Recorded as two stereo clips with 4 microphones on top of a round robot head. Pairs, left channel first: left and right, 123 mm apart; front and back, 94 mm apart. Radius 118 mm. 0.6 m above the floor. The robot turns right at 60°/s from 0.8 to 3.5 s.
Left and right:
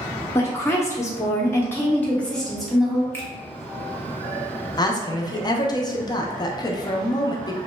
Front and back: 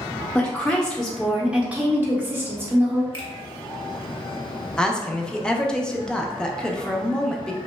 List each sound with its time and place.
0.3 s a woman speaking: 70° left, 0.6 m; by 3.0 s 155° right, 0.6 m
3.1 s a finger snap: 20° left, 1.3 m; by 3.3 s 30° left, 1.3 m
4.8 s a woman speaking: 75° left, 0.6 m